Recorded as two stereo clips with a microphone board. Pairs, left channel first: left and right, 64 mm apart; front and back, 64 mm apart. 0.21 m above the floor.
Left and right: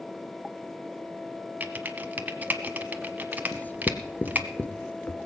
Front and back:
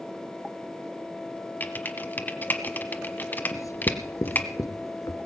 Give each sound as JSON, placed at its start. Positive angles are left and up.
{"t": 1.6, "sound": "typing on a keyboard", "azimuth_deg": -40, "distance_m": 1.1}
{"t": 3.5, "sound": "writing", "azimuth_deg": 30, "distance_m": 1.0}